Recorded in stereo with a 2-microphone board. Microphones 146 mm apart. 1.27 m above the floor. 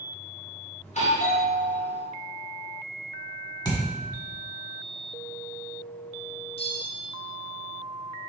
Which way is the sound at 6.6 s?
40° left (ahead or behind).